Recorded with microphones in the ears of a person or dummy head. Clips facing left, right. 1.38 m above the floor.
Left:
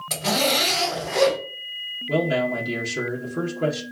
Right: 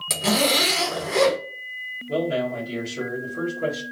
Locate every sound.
0.1 s a zipper: 40° right (ahead or behind), 1.2 m
2.1 s a man speaking: 70° left (ahead or behind), 1.0 m